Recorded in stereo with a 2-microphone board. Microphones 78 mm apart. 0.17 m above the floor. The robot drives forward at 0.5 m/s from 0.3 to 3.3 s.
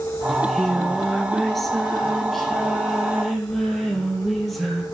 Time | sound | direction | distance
0.3 | singing | 5° left (ahead or behind) | 0.7 m